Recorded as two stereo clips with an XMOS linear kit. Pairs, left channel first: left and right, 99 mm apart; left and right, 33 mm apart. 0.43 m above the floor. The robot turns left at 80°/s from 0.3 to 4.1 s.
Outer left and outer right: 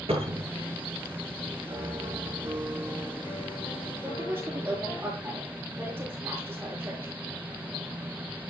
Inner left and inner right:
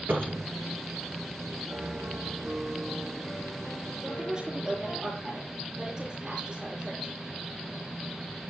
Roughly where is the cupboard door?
Right.